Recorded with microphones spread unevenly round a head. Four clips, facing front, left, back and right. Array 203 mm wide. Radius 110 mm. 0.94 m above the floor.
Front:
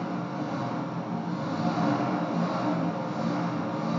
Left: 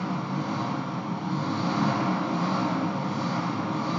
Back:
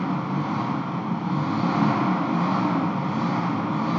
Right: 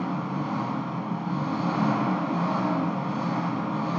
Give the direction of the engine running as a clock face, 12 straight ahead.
6 o'clock.